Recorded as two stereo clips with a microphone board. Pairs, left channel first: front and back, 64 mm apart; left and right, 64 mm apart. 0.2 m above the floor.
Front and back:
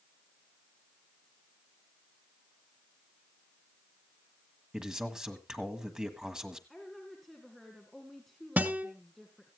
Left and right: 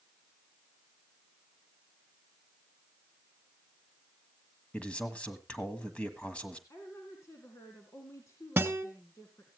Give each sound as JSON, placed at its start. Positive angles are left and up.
{"t": 4.7, "sound": "a man speaking", "azimuth_deg": 120, "distance_m": 1.5}
{"t": 6.7, "sound": "a woman speaking", "azimuth_deg": 90, "distance_m": 2.0}
{"t": 8.6, "sound": "a guitar", "azimuth_deg": -135, "distance_m": 1.3}